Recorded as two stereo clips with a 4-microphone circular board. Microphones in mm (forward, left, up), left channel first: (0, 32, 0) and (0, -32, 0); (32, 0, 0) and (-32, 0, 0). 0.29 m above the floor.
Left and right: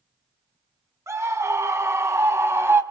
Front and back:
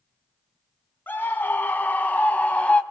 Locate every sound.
1.1 s a scream: 55° right, 3 m; by 2.8 s 65° right, 2.0 m